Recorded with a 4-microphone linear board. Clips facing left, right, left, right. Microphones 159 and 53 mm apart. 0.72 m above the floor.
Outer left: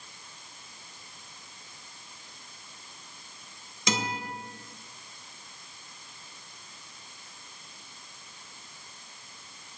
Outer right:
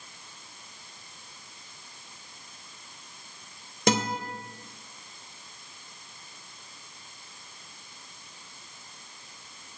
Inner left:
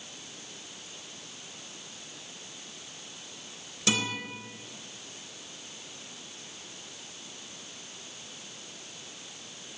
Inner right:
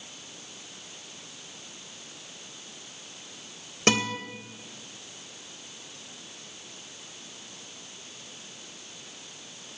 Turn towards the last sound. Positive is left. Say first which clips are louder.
# outer right 6 dB, inner right 5 dB
turn(degrees=-55)  # may be behind; listen again after turning